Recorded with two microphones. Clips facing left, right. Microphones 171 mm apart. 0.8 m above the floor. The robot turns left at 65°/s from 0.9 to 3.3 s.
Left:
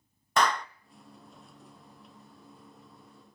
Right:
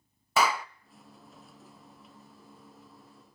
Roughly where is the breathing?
I don't hear breathing.